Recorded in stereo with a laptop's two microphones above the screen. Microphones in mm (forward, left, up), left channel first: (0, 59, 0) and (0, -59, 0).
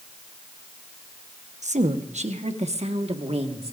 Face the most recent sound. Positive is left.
turn(degrees=-60)  # may be behind; listen again after turning